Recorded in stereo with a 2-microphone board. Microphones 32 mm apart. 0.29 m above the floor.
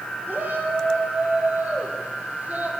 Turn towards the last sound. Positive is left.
turn(degrees=-60)  # may be behind; listen again after turning